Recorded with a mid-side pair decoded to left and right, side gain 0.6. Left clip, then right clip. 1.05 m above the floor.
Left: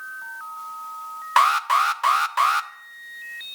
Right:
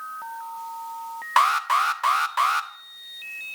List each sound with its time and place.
1.4 s an alarm: 10° left, 0.6 m